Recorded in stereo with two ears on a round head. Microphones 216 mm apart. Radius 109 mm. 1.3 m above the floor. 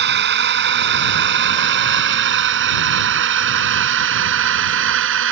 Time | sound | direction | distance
0.0 | a drone | 55° right (ahead or behind) | ?